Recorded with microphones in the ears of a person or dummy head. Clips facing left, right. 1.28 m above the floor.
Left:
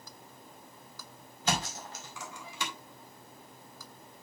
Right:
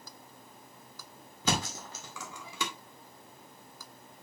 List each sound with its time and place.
1.4 s a thud: 75° right (ahead or behind), 2 m